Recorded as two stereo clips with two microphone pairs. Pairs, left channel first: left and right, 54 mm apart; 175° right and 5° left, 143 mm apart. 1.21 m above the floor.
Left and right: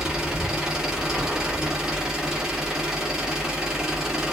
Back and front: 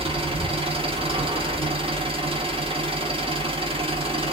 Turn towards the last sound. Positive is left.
turn(degrees=-15)